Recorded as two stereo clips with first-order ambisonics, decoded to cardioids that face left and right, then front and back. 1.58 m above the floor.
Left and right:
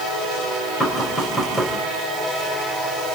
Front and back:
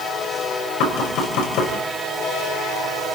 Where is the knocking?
10° left, 5 m.